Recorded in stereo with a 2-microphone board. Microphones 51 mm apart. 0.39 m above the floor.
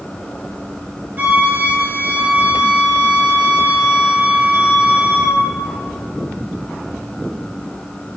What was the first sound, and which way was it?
A flute, 40° right (ahead or behind).